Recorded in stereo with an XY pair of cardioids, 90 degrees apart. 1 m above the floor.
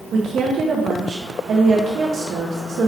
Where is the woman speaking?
70° right, 0.7 m.